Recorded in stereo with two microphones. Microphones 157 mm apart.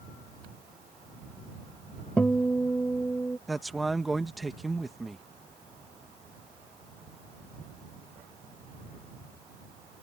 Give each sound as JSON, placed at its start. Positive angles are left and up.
{"t": 2.2, "sound": "a guitar", "side_deg": 10}
{"t": 3.5, "sound": "a man speaking", "side_deg": 0}